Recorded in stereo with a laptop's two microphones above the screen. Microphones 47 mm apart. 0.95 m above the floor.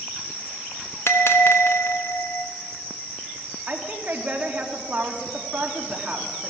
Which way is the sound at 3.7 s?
30° right (ahead or behind).